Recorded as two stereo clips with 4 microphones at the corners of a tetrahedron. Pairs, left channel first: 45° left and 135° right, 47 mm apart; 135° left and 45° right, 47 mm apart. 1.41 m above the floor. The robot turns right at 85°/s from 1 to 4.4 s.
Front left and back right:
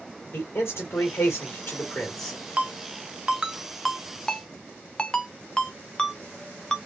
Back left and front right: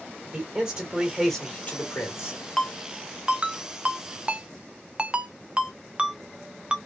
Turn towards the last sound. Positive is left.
turn(degrees=0)